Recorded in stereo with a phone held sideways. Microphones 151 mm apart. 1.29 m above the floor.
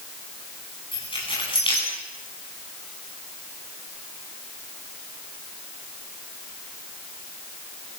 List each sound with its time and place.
0.9 s keys jangling: 35° left (ahead or behind), 9.5 m